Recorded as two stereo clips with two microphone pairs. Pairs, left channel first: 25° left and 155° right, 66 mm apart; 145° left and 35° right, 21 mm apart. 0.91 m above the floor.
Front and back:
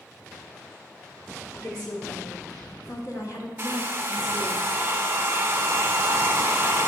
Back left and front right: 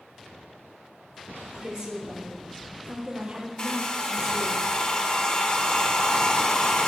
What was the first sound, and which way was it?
A woman speaking, 25° left.